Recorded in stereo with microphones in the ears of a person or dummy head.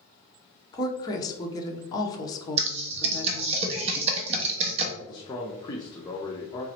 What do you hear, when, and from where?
0.7 s a woman speaking: 15° left (ahead or behind), 0.9 m
2.6 s typing on a keyboard: 35° right (ahead or behind), 0.7 m
5.0 s a man speaking: 20° left (ahead or behind), 0.8 m